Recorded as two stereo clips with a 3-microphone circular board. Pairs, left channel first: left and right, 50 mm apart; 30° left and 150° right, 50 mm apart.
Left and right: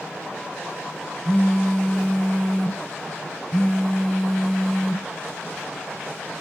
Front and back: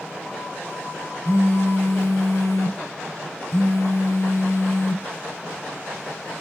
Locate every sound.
1.2 s a phone buzzing: 15° left, 0.7 m